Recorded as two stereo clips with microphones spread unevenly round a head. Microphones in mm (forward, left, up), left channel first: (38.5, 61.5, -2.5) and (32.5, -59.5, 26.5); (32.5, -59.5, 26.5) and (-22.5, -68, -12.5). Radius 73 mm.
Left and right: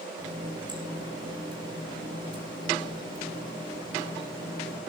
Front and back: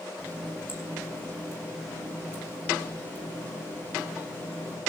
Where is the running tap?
40° right, 7.5 m.